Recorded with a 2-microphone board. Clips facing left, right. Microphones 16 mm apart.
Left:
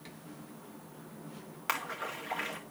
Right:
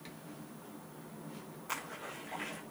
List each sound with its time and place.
1.7 s a splash: 70° left (ahead or behind), 5 m